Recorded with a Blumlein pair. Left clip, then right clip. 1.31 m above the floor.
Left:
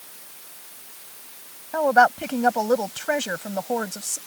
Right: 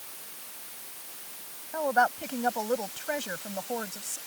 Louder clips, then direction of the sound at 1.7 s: Left 8 dB; 25° left.